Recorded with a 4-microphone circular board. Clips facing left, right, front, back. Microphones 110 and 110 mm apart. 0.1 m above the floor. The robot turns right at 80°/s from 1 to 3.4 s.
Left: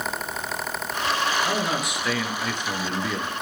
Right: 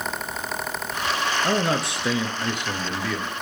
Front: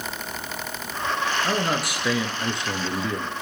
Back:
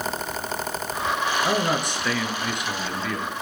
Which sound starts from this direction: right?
A man speaking, at 1.4 s.